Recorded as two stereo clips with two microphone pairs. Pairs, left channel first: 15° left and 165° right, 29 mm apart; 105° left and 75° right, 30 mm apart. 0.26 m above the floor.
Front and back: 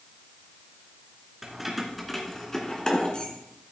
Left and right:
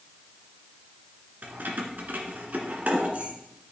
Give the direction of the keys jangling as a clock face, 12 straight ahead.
3 o'clock.